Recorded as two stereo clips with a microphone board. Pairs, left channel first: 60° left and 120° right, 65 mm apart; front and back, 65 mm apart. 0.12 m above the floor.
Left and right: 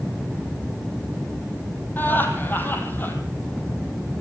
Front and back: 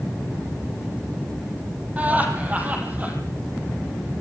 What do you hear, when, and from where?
2.0 s laughter: 120° left, 5 m